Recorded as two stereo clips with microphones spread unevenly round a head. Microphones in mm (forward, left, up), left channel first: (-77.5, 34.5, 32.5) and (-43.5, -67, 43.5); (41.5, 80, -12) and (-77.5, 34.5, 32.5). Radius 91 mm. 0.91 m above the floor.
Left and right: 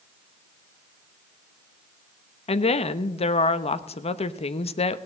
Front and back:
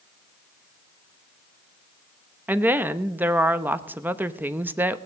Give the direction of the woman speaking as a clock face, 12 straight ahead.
8 o'clock.